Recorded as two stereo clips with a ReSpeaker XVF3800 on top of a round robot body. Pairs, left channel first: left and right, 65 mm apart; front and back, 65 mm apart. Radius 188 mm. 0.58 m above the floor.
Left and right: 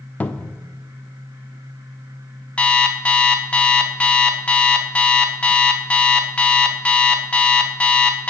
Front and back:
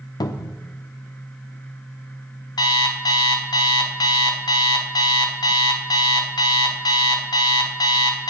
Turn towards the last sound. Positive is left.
turn(degrees=15)